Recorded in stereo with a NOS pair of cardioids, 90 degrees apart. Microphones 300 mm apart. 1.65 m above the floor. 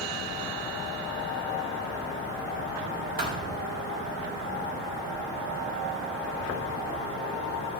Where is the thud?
30° right, 3 m.